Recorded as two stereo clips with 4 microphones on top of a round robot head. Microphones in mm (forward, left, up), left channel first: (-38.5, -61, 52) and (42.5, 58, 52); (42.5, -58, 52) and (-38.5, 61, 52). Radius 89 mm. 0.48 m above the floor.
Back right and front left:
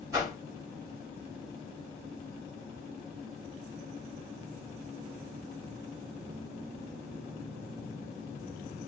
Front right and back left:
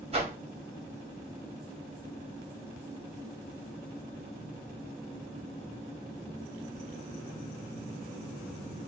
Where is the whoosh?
110° left, 1.2 m.